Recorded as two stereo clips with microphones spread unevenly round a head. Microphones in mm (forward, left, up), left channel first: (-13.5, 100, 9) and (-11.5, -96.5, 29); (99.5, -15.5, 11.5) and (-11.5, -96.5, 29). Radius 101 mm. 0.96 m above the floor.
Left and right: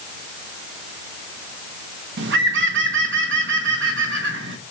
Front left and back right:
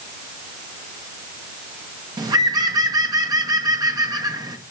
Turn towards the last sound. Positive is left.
turn(degrees=-80)